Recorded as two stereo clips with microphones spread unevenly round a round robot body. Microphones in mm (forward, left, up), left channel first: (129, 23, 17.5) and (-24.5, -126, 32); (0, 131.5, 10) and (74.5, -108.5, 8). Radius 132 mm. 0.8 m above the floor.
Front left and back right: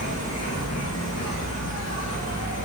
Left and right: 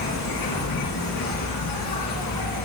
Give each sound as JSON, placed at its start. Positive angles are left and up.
{"t": 0.0, "sound": "an insect", "azimuth_deg": 120, "distance_m": 2.5}